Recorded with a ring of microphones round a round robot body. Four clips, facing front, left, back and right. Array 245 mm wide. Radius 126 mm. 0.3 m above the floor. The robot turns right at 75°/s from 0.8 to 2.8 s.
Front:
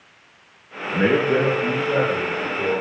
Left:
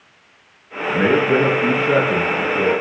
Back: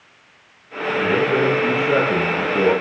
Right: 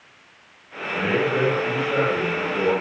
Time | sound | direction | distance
0.9 | a man speaking | 40° left | 6.5 m